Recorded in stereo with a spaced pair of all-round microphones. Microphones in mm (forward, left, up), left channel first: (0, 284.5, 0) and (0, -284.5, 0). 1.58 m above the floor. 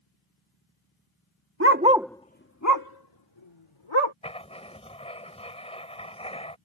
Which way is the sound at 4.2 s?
10° left (ahead or behind).